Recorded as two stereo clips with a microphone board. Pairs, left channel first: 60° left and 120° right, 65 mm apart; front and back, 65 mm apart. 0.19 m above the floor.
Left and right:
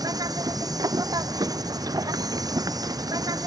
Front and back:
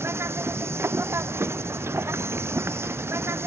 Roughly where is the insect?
Behind right.